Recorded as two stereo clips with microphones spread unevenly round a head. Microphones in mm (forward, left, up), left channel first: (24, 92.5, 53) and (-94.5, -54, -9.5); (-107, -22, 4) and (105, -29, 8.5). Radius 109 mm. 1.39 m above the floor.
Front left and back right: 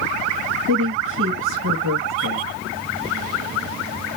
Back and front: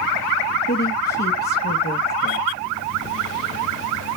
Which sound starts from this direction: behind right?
A woman speaking, at 0.7 s.